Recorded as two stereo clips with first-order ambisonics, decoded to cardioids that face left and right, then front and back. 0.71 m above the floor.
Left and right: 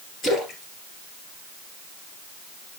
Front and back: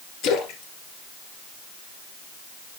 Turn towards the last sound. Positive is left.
turn(degrees=25)